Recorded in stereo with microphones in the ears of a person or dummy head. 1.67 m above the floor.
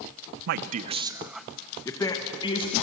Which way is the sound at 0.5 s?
60° right (ahead or behind).